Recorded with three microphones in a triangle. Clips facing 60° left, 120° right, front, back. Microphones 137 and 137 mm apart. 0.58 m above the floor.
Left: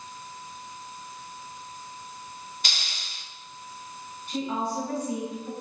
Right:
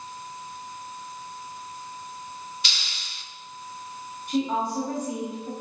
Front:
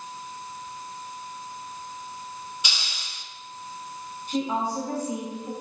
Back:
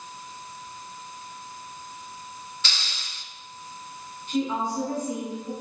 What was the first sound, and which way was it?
A hiss, 75° left.